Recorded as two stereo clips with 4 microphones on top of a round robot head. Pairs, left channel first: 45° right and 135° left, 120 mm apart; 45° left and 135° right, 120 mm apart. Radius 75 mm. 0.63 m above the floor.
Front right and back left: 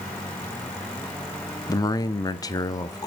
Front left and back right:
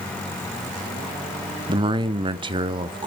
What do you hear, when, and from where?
1.7 s a man speaking: 100° right, 1.0 m